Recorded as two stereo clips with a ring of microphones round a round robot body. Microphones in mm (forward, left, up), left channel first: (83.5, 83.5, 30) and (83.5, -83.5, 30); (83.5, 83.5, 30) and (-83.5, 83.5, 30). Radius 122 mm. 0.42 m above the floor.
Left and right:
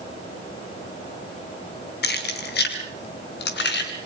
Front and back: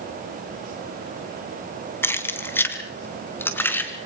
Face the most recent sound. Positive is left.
turn(degrees=80)